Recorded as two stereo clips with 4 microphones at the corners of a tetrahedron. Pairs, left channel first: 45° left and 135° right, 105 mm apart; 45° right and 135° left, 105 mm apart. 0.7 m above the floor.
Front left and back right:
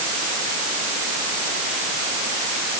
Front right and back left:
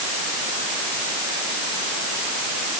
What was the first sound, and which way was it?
Only background noise.